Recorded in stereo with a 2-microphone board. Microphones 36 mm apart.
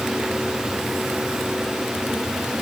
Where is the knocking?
No knocking in this recording.